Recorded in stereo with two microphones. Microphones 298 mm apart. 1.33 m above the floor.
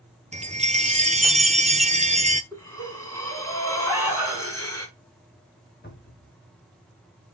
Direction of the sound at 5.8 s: 35° left (ahead or behind).